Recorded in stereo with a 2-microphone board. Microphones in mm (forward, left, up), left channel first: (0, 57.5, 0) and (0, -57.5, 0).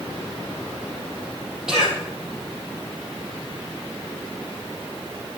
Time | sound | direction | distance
1.7 | a cough | 5° right (ahead or behind) | 7 m